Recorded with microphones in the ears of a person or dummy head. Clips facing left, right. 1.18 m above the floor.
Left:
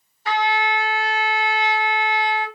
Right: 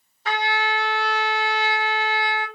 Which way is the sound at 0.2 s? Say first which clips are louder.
Left 3 dB; 70° right (ahead or behind).